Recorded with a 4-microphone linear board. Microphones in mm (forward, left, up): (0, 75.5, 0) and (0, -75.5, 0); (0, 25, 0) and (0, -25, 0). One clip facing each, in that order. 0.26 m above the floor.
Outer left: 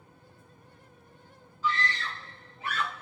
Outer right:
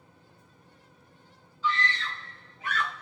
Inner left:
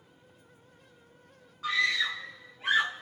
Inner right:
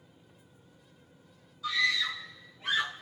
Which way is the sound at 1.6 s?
45° left (ahead or behind).